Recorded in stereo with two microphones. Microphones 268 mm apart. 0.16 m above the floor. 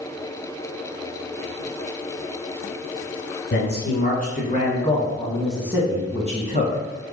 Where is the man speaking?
45° left (ahead or behind), 2.0 m; by 7.1 s 45° right (ahead or behind), 1.7 m.